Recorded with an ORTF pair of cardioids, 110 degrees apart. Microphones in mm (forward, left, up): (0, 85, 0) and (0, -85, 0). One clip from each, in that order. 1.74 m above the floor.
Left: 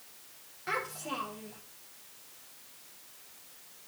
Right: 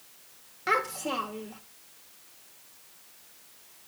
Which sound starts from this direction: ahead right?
A child speaking, at 0.7 s.